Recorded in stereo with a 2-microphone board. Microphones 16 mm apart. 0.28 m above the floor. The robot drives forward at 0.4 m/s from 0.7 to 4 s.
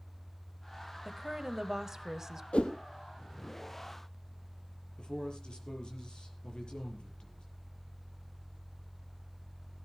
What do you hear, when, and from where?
1.1 s a woman speaking: 20° right (ahead or behind), 1.2 m; by 2.4 s 25° right (ahead or behind), 1.0 m
2.5 s a whoosh: 85° left, 1.8 m; by 2.7 s 80° left, 1.8 m
5.0 s a man speaking: 55° left (ahead or behind), 6 m